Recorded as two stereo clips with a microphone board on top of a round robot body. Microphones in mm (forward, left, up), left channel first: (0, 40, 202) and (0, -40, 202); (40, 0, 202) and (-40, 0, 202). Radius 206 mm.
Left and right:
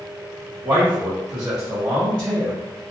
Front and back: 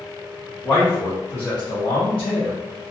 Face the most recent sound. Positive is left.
turn(degrees=0)